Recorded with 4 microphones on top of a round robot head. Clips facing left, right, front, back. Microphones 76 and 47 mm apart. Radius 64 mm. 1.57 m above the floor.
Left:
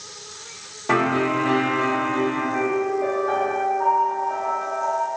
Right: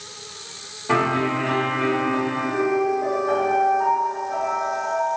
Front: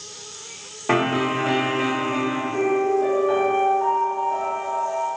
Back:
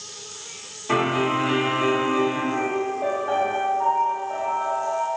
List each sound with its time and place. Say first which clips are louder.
0.9 s a piano: left 1 dB, front 1 dB; 30° left, 0.8 m
2.5 s a piano: right 1 dB, front 5 dB; 135° left, 1.5 m